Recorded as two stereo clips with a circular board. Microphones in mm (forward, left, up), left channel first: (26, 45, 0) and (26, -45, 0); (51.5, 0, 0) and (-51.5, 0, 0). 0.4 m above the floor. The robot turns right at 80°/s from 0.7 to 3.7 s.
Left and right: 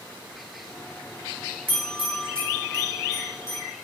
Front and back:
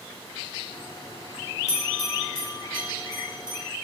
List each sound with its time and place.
1.7 s a bell: 35° right, 1.2 m; by 3.6 s 120° left, 1.2 m